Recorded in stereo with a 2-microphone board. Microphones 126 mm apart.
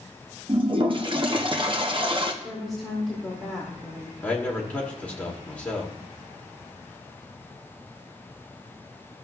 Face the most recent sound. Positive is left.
turn(degrees=10)  # may be behind; listen again after turning